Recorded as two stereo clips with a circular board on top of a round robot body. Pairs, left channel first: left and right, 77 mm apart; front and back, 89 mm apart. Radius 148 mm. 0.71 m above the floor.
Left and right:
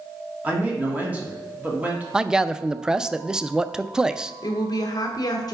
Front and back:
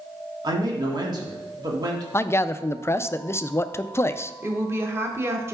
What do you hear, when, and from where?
0.4 s a man speaking: 160° right, 1.5 m
2.1 s a man speaking: 20° right, 0.5 m
4.4 s a woman speaking: 120° left, 1.1 m